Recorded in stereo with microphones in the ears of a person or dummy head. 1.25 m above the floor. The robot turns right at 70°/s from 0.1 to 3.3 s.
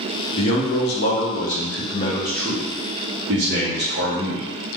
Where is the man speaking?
35° left, 0.8 m; by 4.5 s 120° right, 0.8 m.